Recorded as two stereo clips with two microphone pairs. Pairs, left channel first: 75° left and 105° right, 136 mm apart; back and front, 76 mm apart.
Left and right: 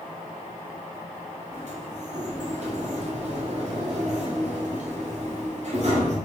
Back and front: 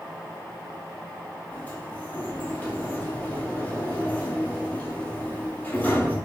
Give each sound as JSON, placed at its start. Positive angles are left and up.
{"t": 1.5, "sound": "a sliding door", "azimuth_deg": -110, "distance_m": 2.0}